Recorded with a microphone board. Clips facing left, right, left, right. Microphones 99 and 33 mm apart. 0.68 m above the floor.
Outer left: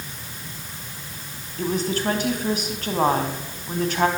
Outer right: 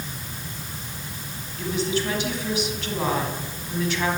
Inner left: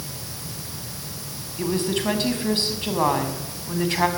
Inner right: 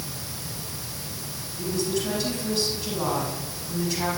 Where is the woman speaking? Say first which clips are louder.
Outer left 1 dB, inner left 3 dB; 45° left (ahead or behind), 5.5 m.